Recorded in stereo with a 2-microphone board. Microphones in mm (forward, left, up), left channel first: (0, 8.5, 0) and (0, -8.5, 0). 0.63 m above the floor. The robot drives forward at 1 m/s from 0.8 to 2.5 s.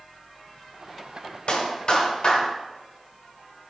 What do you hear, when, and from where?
1.5 s a clap: 65° left (ahead or behind), 2.5 m; by 2.5 s 50° left (ahead or behind), 3 m